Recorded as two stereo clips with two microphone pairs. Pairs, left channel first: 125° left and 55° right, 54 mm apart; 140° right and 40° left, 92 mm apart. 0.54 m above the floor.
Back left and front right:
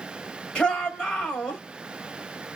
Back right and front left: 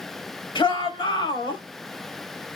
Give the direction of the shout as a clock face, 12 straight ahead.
5 o'clock.